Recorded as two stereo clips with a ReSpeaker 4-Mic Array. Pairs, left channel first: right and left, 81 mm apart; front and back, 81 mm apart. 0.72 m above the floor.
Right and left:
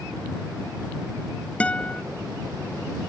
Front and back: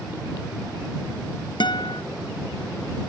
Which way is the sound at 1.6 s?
15° right.